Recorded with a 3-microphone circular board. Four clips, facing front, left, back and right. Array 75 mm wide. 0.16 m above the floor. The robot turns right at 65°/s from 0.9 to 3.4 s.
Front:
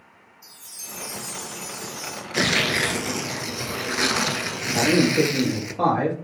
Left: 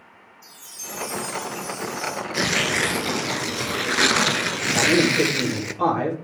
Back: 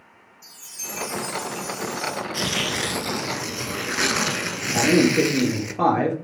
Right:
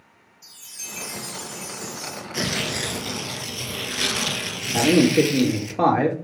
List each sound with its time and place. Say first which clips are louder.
0.4 s a chime: left 3 dB, back 6 dB; 105° right, 2.5 m; by 2.2 s 15° right, 2.5 m
2.3 s tearing paper: left 4 dB, front 4 dB; 25° left, 0.9 m; by 5.7 s 95° left, 0.9 m
4.7 s a man speaking: right 3 dB, back 1 dB; 105° right, 4.5 m